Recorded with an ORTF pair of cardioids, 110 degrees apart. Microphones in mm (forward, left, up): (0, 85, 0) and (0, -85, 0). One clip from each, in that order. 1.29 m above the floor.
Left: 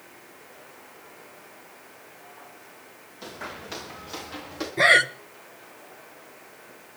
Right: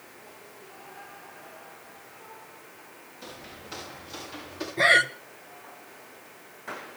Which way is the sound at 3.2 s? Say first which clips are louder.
Left 7 dB; 40° left.